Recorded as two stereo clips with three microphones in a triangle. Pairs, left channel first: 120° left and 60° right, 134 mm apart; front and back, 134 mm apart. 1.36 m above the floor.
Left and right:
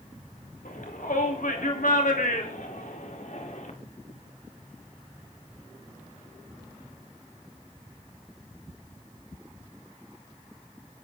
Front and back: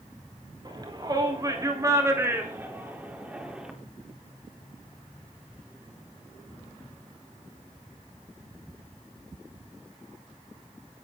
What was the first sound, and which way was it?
A shout, 125° left.